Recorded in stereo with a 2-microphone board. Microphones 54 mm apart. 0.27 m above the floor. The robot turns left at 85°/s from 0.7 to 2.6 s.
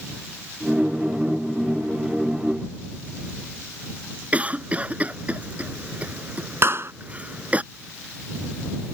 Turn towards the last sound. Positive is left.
turn(degrees=-50)  # may be behind; listen again after turning